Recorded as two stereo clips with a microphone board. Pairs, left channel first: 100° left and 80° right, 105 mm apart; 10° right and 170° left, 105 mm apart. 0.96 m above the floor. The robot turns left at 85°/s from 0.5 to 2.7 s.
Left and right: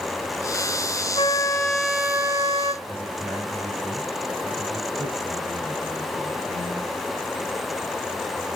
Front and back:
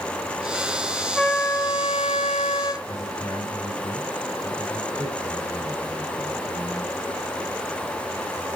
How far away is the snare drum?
No snare drum in this recording.